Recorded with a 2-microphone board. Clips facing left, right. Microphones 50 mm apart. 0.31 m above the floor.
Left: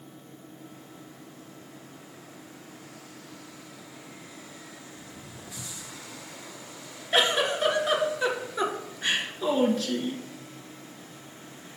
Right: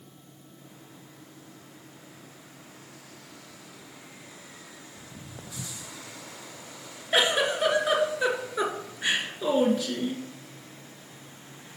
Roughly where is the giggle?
Centre.